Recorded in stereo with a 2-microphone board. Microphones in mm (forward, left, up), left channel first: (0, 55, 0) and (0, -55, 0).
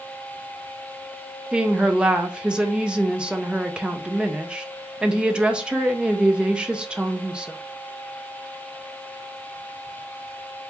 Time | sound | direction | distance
1.5 | a woman speaking | 10° right (ahead or behind) | 0.5 m